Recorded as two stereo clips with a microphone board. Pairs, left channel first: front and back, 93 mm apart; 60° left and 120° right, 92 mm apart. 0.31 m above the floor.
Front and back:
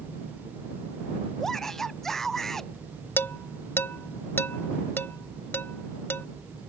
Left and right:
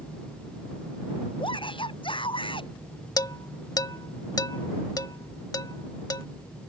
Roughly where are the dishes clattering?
Ahead left.